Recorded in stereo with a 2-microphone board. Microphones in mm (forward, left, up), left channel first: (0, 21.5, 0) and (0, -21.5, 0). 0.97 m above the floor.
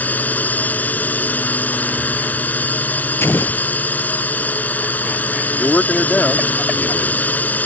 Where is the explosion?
75° left (ahead or behind).